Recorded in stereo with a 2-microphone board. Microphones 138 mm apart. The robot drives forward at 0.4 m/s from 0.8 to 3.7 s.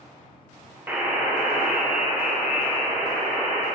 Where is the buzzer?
15° right (ahead or behind), 0.5 m; by 3.6 s 5° right (ahead or behind), 1.6 m.